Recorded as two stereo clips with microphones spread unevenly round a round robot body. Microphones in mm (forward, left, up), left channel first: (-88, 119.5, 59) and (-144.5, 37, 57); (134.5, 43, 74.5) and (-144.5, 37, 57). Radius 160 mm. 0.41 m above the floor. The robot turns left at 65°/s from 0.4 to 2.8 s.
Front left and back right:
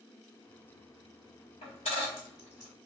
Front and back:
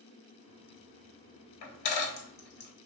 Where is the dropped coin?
20° left, 0.9 m; by 2.7 s 55° right, 0.9 m.